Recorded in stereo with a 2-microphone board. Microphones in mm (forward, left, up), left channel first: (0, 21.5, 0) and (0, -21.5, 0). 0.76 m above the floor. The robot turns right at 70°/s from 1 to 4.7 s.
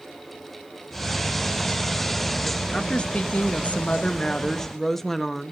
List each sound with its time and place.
2.7 s a woman speaking: 30° left, 0.7 m; by 5.5 s 170° left, 0.7 m